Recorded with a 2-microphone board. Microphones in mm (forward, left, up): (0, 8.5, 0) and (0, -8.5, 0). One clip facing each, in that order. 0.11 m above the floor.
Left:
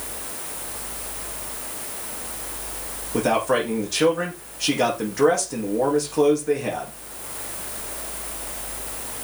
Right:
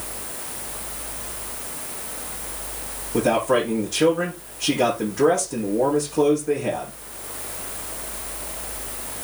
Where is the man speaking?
25° left (ahead or behind), 5.5 m.